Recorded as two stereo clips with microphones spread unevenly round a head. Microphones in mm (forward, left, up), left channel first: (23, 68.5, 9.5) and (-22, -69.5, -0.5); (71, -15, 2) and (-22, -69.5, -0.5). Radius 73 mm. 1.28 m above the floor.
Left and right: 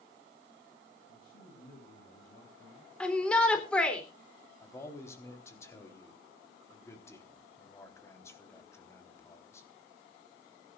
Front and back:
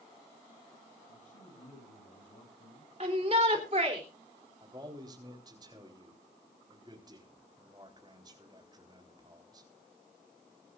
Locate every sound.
1.1 s a man speaking: 40° left, 7 m
3.0 s a shout: 155° left, 3.5 m
4.6 s a man speaking: 145° left, 4 m